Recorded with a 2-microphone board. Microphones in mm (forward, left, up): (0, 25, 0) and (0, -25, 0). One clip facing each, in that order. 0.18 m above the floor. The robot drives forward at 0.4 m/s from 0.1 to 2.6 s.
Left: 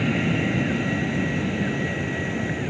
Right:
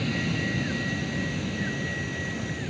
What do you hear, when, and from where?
0.0 s an aircraft: 30° left (ahead or behind)